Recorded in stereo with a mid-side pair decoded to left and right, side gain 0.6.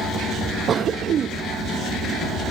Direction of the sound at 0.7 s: 40° right.